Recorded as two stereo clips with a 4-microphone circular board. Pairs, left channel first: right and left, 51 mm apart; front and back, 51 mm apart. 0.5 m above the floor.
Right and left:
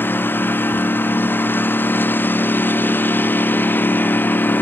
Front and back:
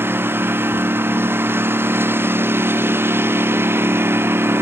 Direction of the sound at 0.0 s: 140° right.